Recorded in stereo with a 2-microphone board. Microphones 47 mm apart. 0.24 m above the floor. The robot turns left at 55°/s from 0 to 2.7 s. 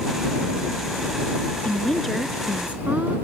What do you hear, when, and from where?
1.6 s a woman speaking: 25° left; by 3.1 s 35° right